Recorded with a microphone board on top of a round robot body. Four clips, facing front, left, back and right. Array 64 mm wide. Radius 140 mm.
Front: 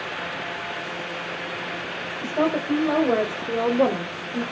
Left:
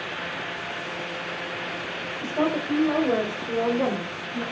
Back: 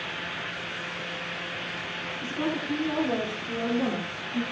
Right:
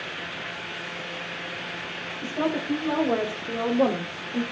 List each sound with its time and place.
2.2 s a woman speaking: 25° left, 3 m; by 4.4 s 45° right, 2.0 m